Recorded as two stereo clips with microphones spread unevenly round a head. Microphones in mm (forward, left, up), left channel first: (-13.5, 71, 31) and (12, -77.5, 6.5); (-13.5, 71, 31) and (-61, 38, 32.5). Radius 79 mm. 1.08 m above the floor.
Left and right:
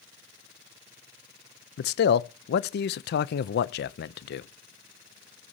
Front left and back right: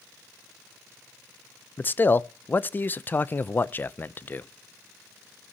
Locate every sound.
1.8 s a man speaking: 90° left, 0.6 m